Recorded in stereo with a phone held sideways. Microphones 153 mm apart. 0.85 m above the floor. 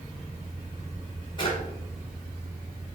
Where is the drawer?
30° left (ahead or behind), 2.0 m.